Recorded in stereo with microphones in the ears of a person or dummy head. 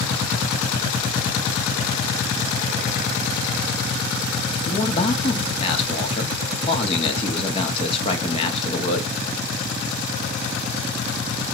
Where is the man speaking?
30° left (ahead or behind), 1.4 m.